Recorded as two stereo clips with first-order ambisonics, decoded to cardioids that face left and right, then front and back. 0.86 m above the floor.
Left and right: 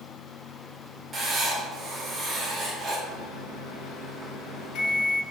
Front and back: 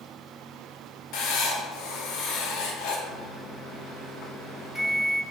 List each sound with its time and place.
1.1 s writing: 20° right, 0.7 m
3.1 s a microwave: 90° left, 0.7 m